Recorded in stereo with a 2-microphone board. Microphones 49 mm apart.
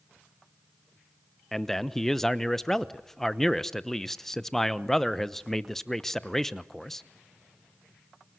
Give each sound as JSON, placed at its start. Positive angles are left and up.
{"t": 1.5, "sound": "a man speaking", "side_deg": 5, "distance_m": 0.8}